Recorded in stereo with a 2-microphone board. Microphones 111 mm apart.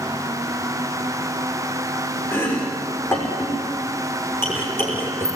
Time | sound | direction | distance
2.3 | chopping | 25° left (ahead or behind) | 6 m